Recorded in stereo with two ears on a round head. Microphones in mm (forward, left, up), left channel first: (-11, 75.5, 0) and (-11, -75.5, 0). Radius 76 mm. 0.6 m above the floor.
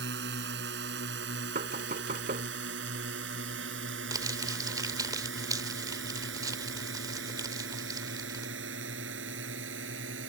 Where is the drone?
75° right (ahead or behind); by 10.3 s 80° right.